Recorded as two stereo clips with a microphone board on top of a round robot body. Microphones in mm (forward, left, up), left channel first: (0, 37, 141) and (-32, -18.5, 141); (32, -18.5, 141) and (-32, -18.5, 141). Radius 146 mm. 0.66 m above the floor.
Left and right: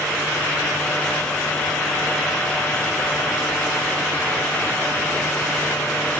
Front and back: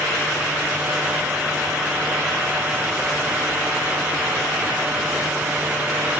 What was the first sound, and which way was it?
Only background noise.